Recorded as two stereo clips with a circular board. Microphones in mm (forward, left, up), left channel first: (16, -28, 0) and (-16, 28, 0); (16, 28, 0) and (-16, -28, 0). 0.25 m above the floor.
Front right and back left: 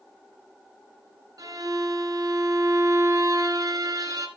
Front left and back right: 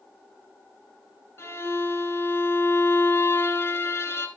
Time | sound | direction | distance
1.4 | a violin | 110° left | 1.4 m